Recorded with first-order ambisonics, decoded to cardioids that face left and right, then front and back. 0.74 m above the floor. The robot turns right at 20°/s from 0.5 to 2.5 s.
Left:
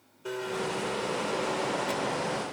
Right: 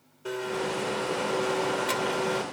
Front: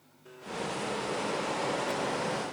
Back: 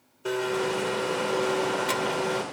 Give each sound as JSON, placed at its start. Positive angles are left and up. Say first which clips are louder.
{"t": 0.2, "sound": "a blender", "louder": "right 2 dB, back 10 dB", "azimuth_deg": -175}